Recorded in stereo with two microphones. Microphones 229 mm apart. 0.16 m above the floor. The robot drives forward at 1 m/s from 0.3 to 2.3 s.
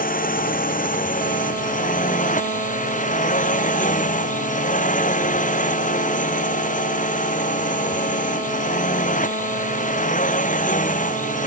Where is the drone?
40° left (ahead or behind); by 11.5 s 35° left (ahead or behind).